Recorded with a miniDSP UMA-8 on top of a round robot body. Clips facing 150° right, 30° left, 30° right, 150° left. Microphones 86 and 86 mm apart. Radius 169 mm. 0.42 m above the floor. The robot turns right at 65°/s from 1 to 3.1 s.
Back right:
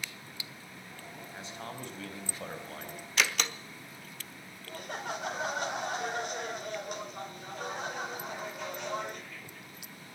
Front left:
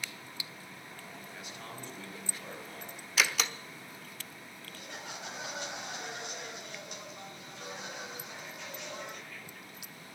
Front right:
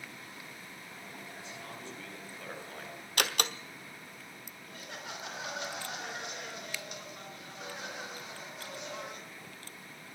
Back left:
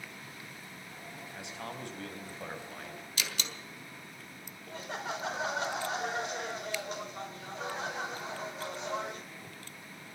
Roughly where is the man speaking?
Behind left.